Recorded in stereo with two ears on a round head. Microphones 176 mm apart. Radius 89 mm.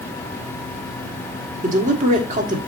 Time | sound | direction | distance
1.6 | a man speaking | 40° right (ahead or behind) | 1.6 m